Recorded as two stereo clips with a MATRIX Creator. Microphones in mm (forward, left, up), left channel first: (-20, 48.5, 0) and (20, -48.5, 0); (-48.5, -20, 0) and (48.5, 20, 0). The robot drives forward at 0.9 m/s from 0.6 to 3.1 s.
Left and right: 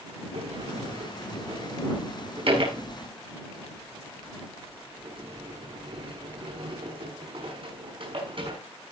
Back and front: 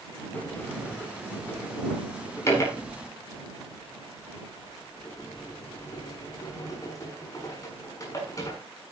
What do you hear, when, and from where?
0.3 s a sliding door: 80° right, 7 m; by 8.6 s 100° right, 7 m